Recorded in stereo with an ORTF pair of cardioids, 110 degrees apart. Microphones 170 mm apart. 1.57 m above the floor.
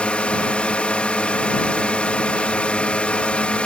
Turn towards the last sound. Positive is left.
turn(degrees=5)